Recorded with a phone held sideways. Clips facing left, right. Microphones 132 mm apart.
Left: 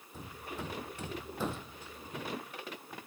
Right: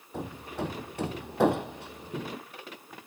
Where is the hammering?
70° right (ahead or behind).